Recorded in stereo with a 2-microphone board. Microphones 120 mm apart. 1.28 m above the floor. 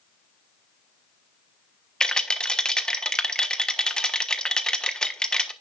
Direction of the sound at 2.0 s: 5° left (ahead or behind).